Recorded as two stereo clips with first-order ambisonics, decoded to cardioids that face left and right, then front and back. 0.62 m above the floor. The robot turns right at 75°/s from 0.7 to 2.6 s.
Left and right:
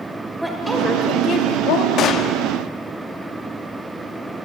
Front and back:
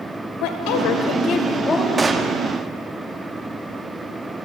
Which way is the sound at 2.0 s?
110° left.